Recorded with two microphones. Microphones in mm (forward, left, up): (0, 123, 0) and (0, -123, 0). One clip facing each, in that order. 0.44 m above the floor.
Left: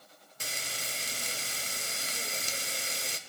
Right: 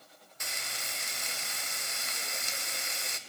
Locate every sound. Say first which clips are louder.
0.4 s frying: left 3 dB; 35° left (ahead or behind), 0.6 m